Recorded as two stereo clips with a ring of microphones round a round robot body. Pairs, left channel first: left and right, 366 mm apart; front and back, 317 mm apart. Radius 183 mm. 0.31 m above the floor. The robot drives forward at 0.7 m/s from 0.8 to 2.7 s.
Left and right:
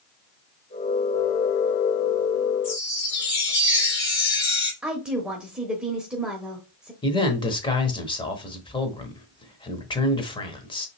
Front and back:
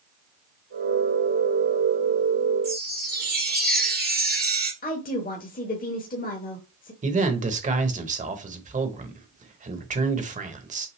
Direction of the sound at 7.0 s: 150° left.